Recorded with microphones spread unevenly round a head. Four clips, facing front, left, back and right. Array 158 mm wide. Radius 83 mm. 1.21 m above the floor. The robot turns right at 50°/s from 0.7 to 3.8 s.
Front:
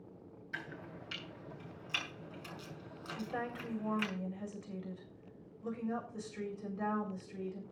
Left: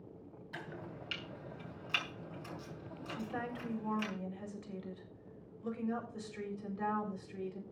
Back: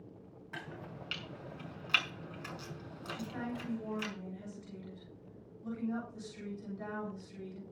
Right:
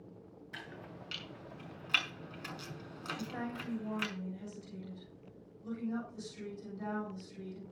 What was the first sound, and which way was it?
Chopping, 150° left.